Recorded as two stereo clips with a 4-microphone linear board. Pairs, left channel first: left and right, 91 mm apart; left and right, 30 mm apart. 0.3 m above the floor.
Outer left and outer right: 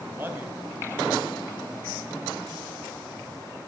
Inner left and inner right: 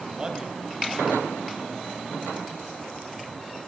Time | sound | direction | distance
0.1 | a man speaking | 25° right (ahead or behind) | 1.8 m